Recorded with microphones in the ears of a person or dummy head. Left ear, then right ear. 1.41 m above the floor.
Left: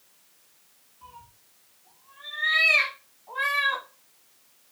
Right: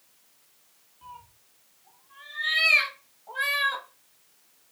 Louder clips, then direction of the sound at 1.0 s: Right 2 dB; 30° right (ahead or behind).